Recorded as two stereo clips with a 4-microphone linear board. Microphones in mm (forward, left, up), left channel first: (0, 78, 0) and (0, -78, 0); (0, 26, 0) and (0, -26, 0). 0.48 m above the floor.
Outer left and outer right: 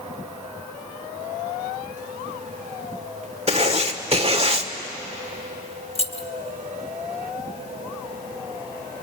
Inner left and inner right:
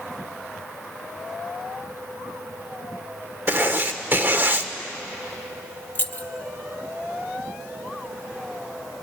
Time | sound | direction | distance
3.5 | writing | 40° right (ahead or behind) | 1.4 m
6.0 | keys jangling | 35° left (ahead or behind) | 0.9 m